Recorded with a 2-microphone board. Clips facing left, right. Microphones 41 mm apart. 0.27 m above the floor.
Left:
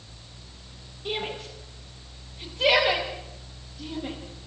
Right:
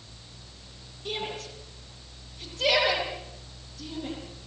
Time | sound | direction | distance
1.1 | a shout | 20° left (ahead or behind) | 9 m